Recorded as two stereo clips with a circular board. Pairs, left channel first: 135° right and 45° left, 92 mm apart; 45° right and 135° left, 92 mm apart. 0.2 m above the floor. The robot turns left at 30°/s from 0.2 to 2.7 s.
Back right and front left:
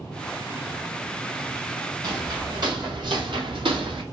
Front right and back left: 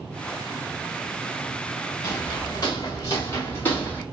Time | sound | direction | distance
2.0 | footsteps | 10° left | 1.8 m